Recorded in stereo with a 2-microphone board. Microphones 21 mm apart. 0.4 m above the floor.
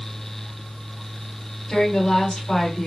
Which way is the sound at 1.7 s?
60° left (ahead or behind).